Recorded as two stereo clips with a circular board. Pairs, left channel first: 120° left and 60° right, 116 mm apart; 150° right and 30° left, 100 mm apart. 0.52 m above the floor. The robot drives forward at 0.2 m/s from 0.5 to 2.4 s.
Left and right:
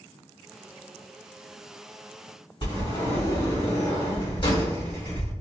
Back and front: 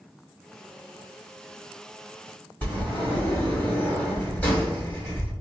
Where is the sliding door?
145° left, 1.9 m.